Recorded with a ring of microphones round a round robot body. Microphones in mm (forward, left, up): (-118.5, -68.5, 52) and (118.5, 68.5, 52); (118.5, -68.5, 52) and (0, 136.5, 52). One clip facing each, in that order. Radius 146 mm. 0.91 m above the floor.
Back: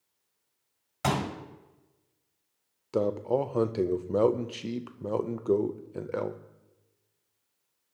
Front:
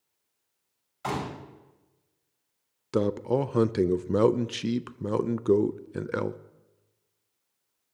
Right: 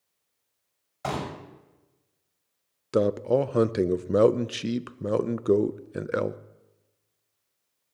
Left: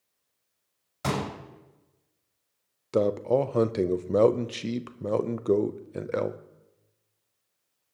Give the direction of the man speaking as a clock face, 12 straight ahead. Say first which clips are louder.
Front 2 dB, right 1 dB; 12 o'clock.